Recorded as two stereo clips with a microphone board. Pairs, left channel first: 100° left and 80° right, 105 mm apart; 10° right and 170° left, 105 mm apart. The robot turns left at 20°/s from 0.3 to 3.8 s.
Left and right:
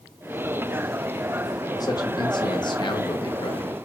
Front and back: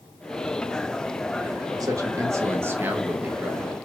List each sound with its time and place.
1.8 s a man speaking: 130° left, 0.8 m; by 3.7 s 90° left, 0.8 m